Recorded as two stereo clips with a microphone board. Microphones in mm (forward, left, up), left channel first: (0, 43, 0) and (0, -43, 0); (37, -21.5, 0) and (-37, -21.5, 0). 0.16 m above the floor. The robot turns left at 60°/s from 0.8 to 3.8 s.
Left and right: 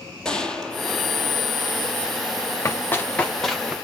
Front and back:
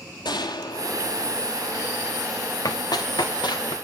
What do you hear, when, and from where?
0.2 s a gunshot: 10° left, 1.0 m; by 1.6 s 35° right, 1.0 m
2.6 s running footsteps: 35° left, 1.2 m; by 3.7 s 10° right, 1.6 m